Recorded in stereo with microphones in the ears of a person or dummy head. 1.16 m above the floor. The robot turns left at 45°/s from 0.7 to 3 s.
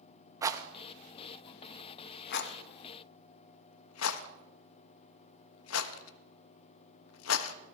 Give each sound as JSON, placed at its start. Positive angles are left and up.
{"t": 0.4, "sound": "a rattle", "side_deg": -15, "distance_m": 0.9}